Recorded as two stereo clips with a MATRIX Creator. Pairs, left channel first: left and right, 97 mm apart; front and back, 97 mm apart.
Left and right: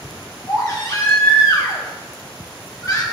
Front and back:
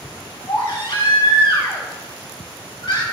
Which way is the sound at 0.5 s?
40° left.